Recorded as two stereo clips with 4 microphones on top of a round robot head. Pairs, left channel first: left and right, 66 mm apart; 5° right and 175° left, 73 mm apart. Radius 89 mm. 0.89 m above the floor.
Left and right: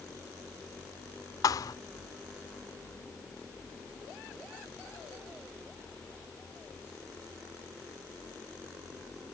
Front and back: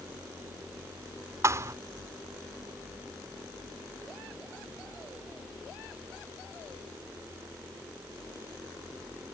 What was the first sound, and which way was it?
A thud, 125° left.